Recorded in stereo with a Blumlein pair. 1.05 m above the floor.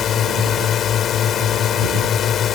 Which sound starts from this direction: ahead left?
A drone, at 0.0 s.